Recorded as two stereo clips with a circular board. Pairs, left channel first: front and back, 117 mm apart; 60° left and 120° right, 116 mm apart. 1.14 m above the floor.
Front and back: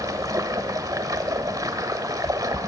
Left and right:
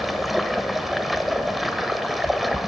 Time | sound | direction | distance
0.0 | running water | 150° left | 1.0 m